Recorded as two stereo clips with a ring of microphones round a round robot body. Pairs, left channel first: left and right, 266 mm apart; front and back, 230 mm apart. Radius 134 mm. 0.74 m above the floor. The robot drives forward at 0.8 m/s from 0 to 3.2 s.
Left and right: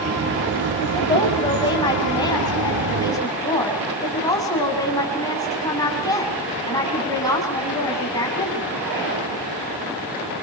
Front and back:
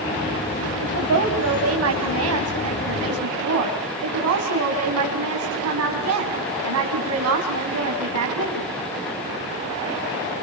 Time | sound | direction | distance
0.8 | a woman speaking | 160° left | 5.5 m